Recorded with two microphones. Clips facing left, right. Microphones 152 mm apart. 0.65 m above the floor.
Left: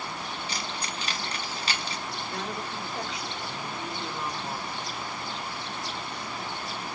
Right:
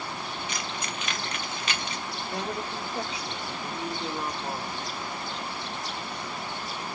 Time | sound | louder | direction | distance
0.5 | keys jangling | right 1 dB | 35° left (ahead or behind) | 0.7 m
2.3 | a woman speaking | right 4 dB | 25° right (ahead or behind) | 1.4 m